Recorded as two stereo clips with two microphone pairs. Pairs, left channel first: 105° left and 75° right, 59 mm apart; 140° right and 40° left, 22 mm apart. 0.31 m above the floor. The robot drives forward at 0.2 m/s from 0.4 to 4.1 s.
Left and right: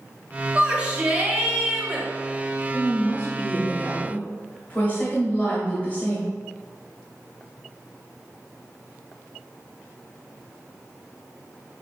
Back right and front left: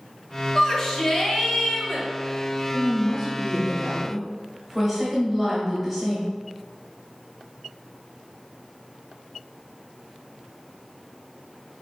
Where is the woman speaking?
95° left, 1.0 m; by 6.3 s 130° left, 1.0 m.